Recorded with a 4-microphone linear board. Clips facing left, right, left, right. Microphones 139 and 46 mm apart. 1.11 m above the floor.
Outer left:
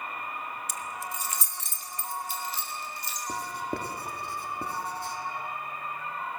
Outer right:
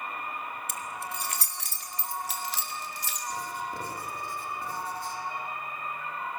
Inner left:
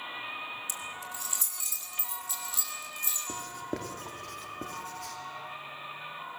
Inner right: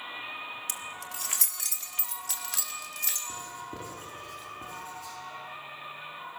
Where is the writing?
65° left (ahead or behind), 2.5 m.